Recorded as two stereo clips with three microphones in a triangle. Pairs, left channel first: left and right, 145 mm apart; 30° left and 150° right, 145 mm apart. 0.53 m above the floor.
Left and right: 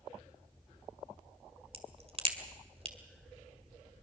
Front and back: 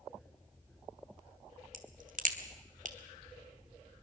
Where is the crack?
135° right, 2 m.